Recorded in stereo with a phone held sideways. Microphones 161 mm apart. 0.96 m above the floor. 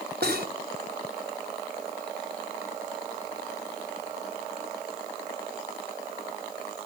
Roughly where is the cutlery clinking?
Right.